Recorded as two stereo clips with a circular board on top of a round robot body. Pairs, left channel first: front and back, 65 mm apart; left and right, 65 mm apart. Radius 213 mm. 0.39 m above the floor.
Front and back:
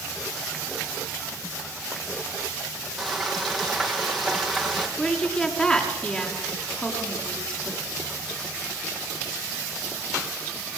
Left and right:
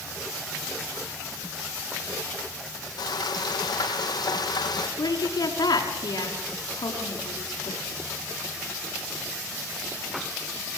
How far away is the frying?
About 4 m.